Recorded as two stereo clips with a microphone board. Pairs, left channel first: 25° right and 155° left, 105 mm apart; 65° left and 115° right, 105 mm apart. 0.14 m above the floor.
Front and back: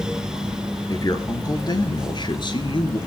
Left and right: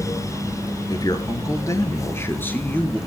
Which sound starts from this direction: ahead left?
A man speaking, at 0.9 s.